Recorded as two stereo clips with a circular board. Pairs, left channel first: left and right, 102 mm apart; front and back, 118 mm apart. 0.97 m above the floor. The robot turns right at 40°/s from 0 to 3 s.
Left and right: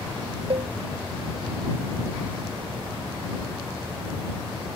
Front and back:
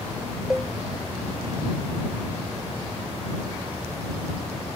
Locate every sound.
0.5 s a cowbell: 95° right; by 0.7 s 85° right